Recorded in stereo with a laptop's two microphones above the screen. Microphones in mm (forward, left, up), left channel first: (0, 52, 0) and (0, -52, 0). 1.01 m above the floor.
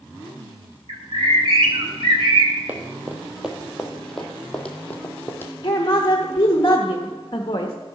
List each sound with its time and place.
0.9 s a bird: 60° right (ahead or behind), 2.0 m
2.7 s running footsteps: 15° right (ahead or behind), 1.9 m; by 5.5 s 20° left (ahead or behind), 2.5 m
5.6 s a woman speaking: 50° left (ahead or behind), 1.0 m